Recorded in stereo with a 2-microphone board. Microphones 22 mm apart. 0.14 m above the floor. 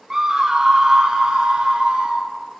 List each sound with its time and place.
0.1 s a scream: 20° right (ahead or behind), 1.3 m; by 2.2 s 45° right (ahead or behind), 2.5 m